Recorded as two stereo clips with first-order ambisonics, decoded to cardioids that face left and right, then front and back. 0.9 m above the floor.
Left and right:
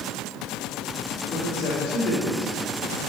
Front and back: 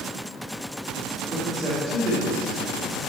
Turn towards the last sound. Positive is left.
turn(degrees=115)